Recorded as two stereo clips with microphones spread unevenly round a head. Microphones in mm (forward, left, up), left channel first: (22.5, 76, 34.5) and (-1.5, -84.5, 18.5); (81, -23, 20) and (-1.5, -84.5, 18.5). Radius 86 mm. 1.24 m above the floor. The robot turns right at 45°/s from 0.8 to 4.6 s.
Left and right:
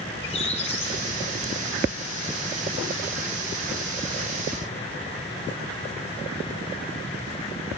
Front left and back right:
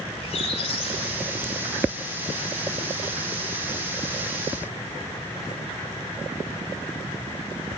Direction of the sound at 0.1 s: 25° left.